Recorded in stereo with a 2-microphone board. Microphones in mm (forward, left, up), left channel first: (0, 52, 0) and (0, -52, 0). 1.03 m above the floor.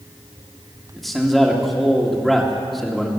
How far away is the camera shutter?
No camera shutter in this recording.